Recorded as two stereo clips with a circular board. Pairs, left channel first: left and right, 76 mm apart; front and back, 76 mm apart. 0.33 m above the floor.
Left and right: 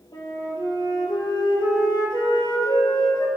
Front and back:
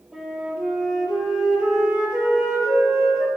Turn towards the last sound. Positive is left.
turn(degrees=100)